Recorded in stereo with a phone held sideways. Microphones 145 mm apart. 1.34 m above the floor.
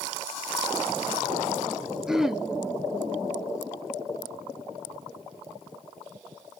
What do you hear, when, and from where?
2.1 s throat clearing: 5° right (ahead or behind), 0.6 m